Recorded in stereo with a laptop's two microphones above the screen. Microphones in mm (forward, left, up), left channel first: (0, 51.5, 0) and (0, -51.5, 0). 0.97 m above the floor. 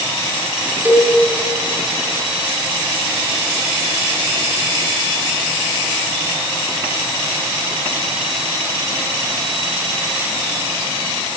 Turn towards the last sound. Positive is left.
turn(degrees=-20)  # may be behind; listen again after turning